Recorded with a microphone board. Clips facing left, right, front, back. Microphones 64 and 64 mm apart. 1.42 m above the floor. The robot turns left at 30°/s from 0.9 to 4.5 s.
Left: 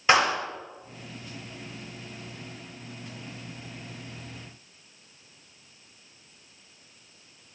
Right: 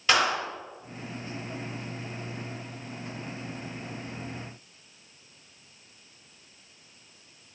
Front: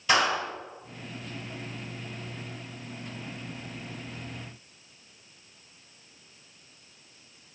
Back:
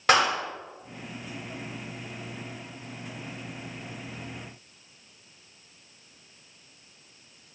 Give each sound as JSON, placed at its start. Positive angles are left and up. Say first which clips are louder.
{"t": 0.1, "sound": "a clap", "louder": "left 3 dB, back 2 dB", "azimuth_deg": 155, "distance_m": 4.5}